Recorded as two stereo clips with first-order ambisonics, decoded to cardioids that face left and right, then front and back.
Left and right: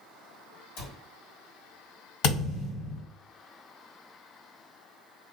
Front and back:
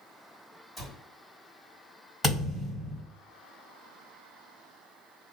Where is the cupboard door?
90° left, 1.5 m.